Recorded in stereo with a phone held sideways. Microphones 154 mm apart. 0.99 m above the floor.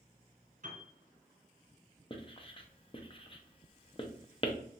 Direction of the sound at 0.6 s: 65° right (ahead or behind).